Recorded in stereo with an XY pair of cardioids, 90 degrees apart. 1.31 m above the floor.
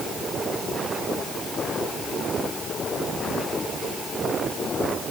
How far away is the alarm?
I don't hear an alarm.